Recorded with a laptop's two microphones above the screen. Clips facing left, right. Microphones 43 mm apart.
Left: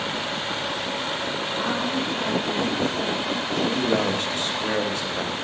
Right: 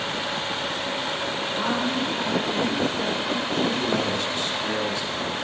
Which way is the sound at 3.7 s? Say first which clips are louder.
Left 2 dB; 50° left (ahead or behind).